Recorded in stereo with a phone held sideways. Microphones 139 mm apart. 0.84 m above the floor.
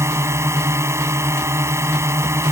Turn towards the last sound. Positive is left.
turn(degrees=-20)  # may be behind; listen again after turning